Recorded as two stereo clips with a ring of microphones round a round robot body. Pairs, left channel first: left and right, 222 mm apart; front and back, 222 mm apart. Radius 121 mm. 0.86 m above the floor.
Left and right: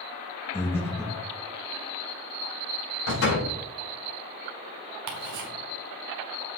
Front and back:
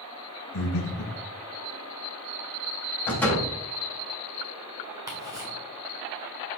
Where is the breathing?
10° left, 2 m.